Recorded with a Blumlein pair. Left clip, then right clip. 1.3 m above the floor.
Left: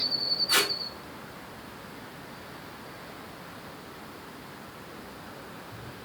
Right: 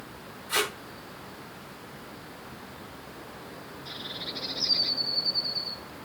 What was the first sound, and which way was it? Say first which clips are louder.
Tape being pulled: left 1 dB; 30° left.